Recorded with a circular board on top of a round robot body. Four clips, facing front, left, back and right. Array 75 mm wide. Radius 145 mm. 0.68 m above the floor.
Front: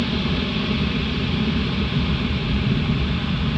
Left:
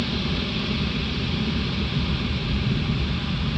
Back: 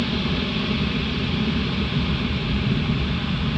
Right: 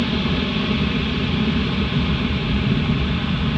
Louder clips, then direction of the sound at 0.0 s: Right 6 dB, front 1 dB; 85° right.